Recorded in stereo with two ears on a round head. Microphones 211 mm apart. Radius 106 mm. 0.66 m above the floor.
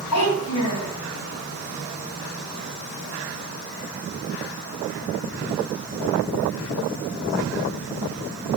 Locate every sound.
0.1 s a child speaking: 75° left (ahead or behind), 2.5 m